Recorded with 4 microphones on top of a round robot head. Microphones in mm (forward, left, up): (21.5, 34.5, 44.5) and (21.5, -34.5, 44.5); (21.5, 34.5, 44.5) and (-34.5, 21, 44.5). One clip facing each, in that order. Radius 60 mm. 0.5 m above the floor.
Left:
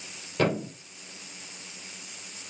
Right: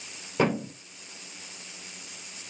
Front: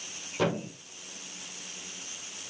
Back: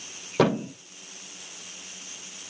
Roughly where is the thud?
Behind.